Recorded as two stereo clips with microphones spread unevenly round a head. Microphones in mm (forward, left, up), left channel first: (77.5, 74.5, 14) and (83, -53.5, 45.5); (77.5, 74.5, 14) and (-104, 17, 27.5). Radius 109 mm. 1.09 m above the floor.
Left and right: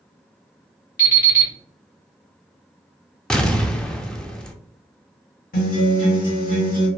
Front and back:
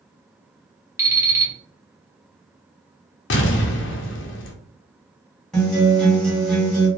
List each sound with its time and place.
1.0 s an alarm clock: 125° left, 1.3 m
3.3 s an explosion: 15° left, 0.5 m
5.5 s a guitar: 105° left, 1.4 m